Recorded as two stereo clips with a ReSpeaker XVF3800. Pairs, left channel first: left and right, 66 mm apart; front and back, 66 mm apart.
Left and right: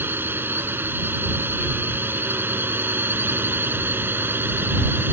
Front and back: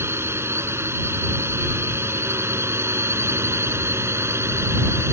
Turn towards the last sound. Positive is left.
turn(degrees=-140)